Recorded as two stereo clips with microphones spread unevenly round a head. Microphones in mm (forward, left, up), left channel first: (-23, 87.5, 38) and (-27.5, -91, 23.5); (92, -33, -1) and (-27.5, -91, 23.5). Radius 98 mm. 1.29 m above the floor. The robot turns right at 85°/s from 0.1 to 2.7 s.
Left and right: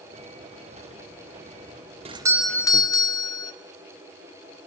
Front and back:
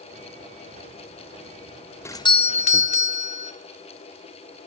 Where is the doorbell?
40° right, 1.0 m; by 3.5 s 15° left, 1.0 m.